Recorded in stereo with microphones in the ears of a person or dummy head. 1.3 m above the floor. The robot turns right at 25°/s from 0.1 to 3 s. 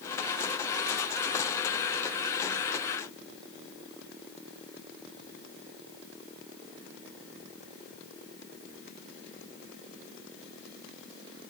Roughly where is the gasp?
I don't hear a gasp.